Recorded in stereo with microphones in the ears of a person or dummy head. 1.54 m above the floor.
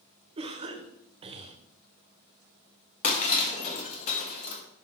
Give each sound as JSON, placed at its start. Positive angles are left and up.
{"t": 0.4, "sound": "a cough", "side_deg": -30, "distance_m": 0.5}
{"t": 3.0, "sound": "breaking glass", "side_deg": 40, "distance_m": 1.1}